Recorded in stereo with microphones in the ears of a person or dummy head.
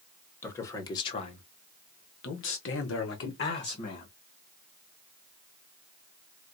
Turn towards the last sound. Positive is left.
turn(degrees=55)  # may be behind; listen again after turning